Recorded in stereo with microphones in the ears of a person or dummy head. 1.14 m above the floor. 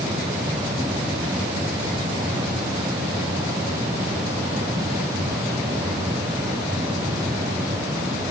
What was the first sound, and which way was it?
Only background noise.